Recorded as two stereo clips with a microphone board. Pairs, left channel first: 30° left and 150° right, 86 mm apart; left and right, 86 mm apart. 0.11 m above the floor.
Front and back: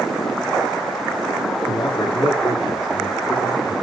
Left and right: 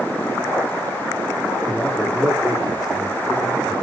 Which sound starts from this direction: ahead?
A man speaking, at 1.6 s.